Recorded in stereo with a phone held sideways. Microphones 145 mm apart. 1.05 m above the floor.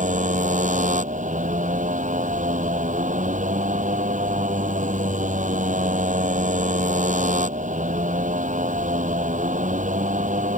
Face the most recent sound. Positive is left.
turn(degrees=-60)  # may be behind; listen again after turning